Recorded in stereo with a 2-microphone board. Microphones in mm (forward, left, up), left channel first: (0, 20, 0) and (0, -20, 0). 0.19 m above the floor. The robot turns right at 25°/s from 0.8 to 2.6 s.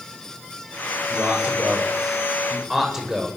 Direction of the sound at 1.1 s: 50° right (ahead or behind).